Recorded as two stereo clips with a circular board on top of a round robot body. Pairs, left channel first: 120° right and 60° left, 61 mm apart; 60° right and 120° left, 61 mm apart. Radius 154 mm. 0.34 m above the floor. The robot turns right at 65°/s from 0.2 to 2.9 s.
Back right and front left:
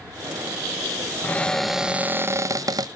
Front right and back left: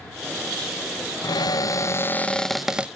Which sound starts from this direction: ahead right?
A cupboard door, at 1.2 s.